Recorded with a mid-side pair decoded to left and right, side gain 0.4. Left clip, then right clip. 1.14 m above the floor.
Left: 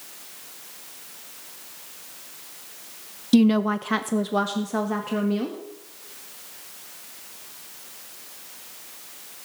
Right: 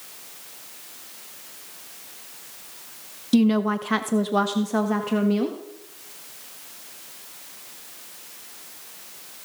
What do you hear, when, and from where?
3.3 s a woman speaking: 20° left, 0.5 m; by 5.6 s 25° right, 1.6 m